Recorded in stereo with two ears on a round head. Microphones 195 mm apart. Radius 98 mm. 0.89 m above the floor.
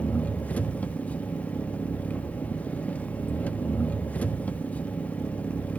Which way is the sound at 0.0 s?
5° left (ahead or behind).